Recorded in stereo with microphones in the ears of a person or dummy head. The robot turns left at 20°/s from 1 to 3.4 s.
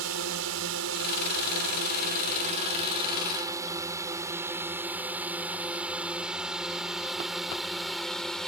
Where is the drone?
75° right (ahead or behind); by 8.5 s 5° left (ahead or behind).